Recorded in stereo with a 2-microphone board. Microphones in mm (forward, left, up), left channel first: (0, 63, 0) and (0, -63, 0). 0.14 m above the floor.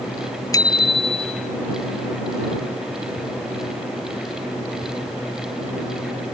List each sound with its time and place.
0.5 s a bicycle bell: 30° left (ahead or behind); by 1.6 s 60° left (ahead or behind)